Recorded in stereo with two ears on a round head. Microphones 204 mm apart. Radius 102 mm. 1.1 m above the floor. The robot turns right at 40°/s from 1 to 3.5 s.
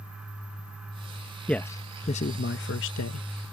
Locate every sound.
1.5 s a man speaking: 5° left (ahead or behind); by 3.3 s 75° left (ahead or behind)